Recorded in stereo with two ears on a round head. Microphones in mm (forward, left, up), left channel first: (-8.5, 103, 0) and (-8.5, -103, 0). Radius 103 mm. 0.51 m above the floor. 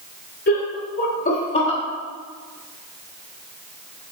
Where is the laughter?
45° left (ahead or behind), 1.8 m; by 1.8 s 20° left (ahead or behind), 1.4 m.